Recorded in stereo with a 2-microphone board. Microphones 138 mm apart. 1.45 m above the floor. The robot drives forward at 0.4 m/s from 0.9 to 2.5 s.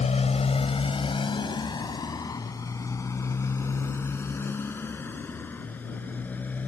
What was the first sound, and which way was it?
A motorcycle, 55° left (ahead or behind).